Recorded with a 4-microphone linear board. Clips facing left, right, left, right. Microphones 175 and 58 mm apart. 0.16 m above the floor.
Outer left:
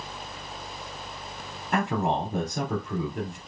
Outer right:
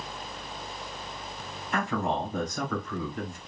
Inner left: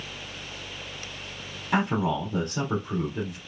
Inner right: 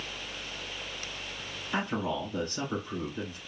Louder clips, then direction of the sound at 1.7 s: Outer left 3 dB, inner left 6 dB; 60° left (ahead or behind).